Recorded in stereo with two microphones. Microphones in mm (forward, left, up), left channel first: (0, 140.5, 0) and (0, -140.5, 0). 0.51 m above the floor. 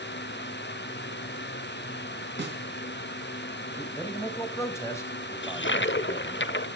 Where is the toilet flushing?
40° left (ahead or behind), 0.5 m.